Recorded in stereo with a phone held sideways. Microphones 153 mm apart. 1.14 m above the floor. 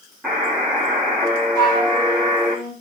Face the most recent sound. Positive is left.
turn(degrees=15)  # may be behind; listen again after turning